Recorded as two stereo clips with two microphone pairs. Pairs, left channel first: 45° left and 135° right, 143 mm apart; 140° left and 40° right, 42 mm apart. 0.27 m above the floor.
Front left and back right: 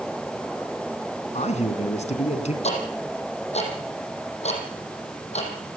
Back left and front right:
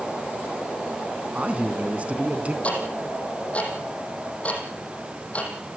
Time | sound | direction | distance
1.3 | a man speaking | 15° left | 2.5 m
2.6 | ticking | 85° left | 5.5 m